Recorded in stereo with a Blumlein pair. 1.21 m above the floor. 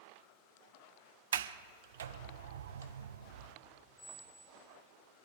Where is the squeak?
30° left, 2.5 m.